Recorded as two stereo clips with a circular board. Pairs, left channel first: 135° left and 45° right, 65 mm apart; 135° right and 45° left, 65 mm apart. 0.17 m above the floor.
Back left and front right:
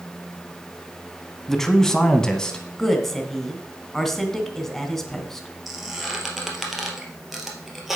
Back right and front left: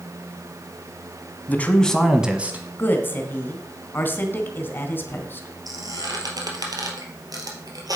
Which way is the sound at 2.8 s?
145° right.